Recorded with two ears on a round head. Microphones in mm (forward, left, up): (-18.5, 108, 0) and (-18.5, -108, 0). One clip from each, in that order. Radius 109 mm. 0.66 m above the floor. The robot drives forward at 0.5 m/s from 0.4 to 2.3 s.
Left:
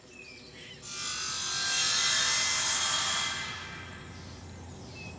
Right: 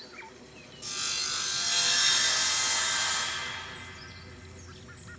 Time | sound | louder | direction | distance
0.8 | sawing | right 4 dB | 35° right (ahead or behind) | 0.7 m